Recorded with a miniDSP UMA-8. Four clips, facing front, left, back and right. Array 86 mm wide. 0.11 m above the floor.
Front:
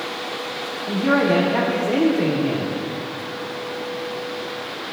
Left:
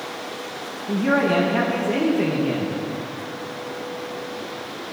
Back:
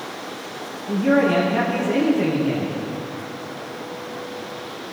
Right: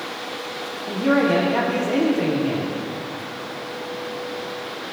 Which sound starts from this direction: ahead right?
A man speaking, at 0.9 s.